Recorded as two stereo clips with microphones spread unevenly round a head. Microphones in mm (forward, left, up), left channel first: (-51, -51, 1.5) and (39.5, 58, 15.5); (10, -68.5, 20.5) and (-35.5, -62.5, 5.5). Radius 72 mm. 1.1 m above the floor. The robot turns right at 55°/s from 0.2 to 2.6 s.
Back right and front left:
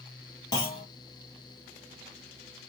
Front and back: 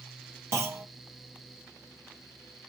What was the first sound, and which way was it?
A clunk, 170° left.